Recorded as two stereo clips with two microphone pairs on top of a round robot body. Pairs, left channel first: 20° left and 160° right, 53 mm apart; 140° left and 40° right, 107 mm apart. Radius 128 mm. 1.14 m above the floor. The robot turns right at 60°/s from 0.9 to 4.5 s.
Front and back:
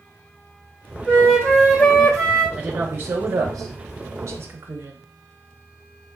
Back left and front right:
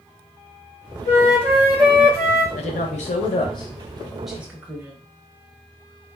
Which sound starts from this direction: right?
A flute, at 1.1 s.